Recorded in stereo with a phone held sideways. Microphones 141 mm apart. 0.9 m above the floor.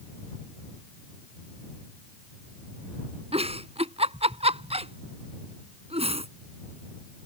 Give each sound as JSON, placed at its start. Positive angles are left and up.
{"t": 3.3, "sound": "a giggle", "side_deg": -45}